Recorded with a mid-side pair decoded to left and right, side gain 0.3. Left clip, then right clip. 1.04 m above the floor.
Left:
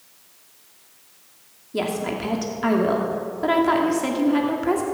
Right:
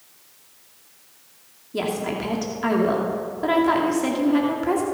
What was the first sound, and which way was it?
A woman speaking, 15° left.